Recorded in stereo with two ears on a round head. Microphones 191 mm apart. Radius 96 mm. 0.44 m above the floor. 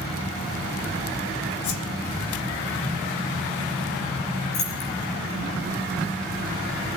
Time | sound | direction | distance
1.6 | a whoosh | 90° left | 2.5 m
4.5 | keys jangling | 75° left (ahead or behind) | 7 m